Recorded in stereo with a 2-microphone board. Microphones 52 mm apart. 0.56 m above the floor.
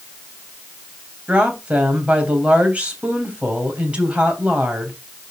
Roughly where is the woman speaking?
Right.